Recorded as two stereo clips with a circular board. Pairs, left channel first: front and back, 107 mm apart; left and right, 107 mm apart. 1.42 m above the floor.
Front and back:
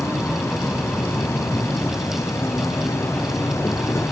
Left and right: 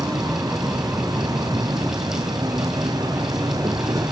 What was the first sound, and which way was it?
An insect, 55° right.